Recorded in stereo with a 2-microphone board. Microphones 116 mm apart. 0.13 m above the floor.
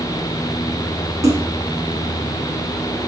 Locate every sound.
1.2 s a splash: 30° right (ahead or behind), 3 m